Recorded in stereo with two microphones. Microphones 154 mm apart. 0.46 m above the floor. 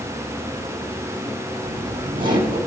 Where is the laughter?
30° right (ahead or behind), 5 m.